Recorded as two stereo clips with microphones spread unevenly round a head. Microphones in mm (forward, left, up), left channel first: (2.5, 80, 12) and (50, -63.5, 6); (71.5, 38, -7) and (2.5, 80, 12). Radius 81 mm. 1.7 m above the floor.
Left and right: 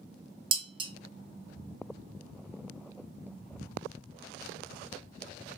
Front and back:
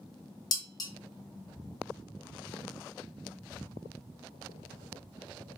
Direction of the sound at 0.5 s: 50° right.